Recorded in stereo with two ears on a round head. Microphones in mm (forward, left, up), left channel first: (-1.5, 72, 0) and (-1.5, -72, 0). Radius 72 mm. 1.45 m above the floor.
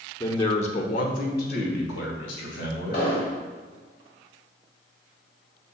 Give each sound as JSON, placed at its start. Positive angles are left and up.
{"t": 0.2, "sound": "a man speaking", "side_deg": 20, "distance_m": 1.0}
{"t": 2.9, "sound": "an explosion", "side_deg": 65, "distance_m": 3.0}